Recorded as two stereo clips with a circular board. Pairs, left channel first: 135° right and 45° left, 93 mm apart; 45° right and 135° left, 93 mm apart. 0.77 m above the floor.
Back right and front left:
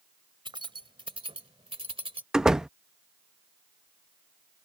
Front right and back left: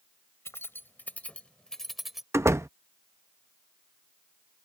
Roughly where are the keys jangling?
Ahead.